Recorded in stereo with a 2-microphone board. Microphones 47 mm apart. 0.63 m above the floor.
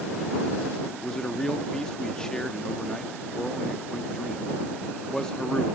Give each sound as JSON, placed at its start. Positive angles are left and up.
{"t": 1.0, "sound": "a man speaking", "side_deg": 10}